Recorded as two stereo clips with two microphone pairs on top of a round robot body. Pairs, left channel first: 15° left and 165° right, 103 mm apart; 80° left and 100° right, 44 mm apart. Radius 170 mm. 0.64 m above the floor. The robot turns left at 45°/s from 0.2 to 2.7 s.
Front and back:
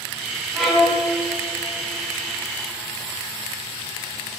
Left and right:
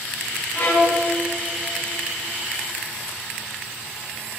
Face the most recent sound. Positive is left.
turn(degrees=15)